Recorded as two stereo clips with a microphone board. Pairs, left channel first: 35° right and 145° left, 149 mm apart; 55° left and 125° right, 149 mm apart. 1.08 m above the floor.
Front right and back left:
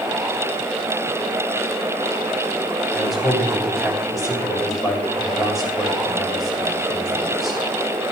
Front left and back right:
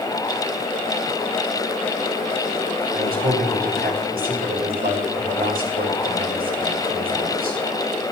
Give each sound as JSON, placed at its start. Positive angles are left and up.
{"t": 2.9, "sound": "a man speaking", "azimuth_deg": -125, "distance_m": 6.5}